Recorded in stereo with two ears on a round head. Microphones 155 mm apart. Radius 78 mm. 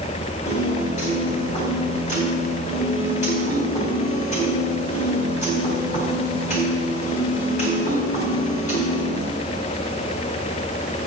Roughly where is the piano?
Left.